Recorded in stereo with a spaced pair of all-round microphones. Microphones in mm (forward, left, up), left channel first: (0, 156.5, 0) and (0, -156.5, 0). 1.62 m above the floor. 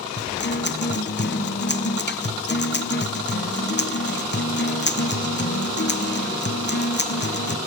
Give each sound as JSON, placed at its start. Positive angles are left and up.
{"t": 0.2, "sound": "a guitar", "side_deg": 35, "distance_m": 0.8}